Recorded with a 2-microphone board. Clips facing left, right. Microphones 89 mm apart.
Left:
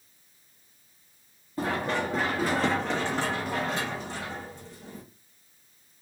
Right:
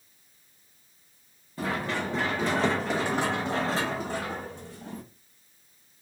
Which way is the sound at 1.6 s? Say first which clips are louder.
Left 2 dB; 25° left (ahead or behind).